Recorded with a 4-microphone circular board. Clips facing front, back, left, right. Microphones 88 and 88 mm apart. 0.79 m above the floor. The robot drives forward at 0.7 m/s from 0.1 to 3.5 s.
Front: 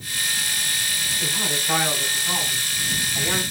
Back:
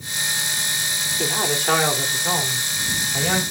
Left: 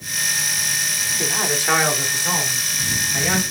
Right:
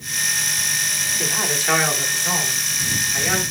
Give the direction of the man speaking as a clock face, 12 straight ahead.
7 o'clock.